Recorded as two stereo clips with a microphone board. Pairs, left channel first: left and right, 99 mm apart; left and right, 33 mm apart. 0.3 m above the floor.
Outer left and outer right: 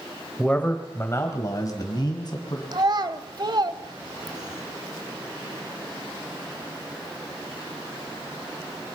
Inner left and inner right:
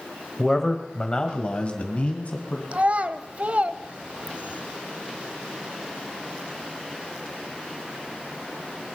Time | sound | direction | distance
0.4 | a man speaking | 10° left (ahead or behind) | 1.3 m
2.7 | a child speaking | 45° right (ahead or behind) | 0.9 m